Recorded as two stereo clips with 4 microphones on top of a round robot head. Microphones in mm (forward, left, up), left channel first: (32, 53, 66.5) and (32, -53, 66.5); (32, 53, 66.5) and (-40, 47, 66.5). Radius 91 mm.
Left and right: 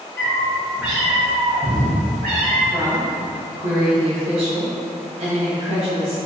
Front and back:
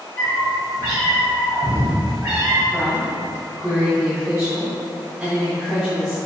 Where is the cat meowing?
25° left, 0.7 m; by 2.6 s 110° right, 1.1 m.